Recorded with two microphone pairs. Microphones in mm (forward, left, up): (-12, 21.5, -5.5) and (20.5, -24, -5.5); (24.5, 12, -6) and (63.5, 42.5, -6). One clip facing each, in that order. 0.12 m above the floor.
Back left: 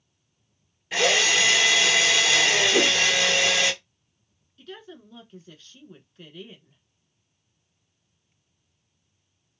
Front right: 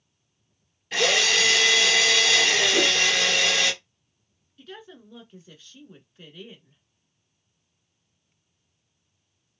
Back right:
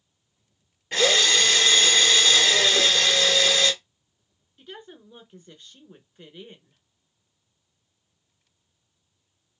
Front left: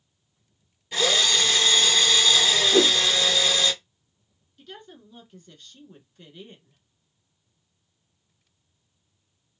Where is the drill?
160° right, 1.5 m.